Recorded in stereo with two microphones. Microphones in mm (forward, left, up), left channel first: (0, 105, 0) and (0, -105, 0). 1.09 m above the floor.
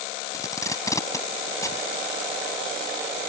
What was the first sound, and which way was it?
Tape being pulled, 15° left (ahead or behind).